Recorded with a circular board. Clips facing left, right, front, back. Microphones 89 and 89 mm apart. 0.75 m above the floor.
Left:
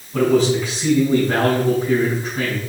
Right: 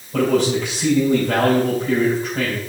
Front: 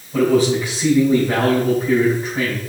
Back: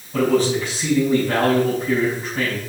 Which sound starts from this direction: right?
A man speaking, at 0.1 s.